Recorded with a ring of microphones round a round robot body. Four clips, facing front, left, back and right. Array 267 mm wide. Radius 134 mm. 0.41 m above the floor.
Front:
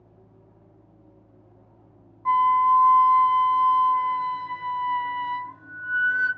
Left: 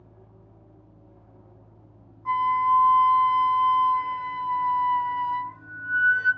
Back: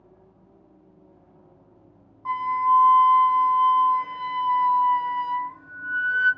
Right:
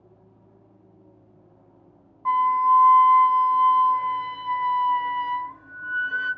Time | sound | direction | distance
2.2 | a flute | 80° right | 0.8 m